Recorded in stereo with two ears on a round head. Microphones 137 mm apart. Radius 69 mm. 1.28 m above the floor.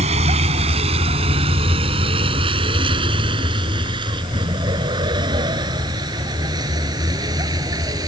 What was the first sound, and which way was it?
A vehicle, 45° right (ahead or behind).